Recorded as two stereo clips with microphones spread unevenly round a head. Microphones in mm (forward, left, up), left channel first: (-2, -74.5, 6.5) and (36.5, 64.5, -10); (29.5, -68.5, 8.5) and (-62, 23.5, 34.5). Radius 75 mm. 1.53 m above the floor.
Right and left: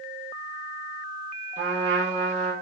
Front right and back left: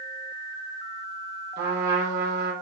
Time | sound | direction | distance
1.6 | a trumpet | 125° left | 4.5 m